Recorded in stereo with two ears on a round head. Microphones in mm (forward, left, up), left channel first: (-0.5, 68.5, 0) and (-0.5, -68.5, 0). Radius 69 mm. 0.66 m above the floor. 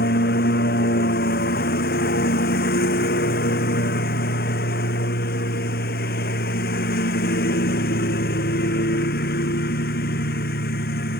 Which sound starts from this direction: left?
A lawn mower, at 0.0 s.